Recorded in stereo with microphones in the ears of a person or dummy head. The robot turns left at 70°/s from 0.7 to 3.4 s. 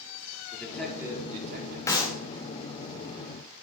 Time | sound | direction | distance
0.5 | a man speaking | 10° left | 4 m
1.9 | a clap | 10° left (ahead or behind) | 1.9 m